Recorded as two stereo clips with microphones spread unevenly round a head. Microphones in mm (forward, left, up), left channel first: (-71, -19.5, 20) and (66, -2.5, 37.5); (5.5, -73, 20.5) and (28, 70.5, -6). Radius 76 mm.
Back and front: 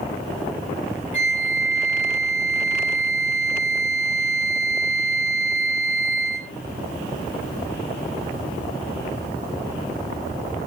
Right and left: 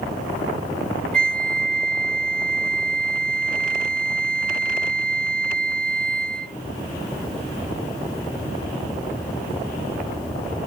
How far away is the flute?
About 0.9 m.